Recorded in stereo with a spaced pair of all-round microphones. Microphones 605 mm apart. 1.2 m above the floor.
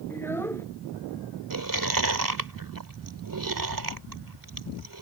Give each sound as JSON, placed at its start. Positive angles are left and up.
{"t": 0.1, "sound": "a child speaking", "side_deg": 5}
{"t": 1.5, "sound": "chewing", "side_deg": -35}